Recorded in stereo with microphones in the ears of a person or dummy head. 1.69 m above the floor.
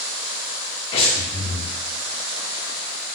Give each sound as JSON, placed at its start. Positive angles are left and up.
{"t": 0.9, "sound": "breathing", "side_deg": 30, "distance_m": 1.1}